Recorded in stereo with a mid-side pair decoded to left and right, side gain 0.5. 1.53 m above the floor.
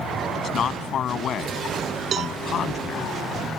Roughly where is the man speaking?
Ahead left.